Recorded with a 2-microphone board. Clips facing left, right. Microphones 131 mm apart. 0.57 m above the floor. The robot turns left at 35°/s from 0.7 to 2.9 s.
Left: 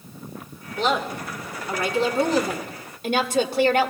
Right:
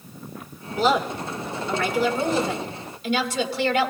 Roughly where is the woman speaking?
Behind.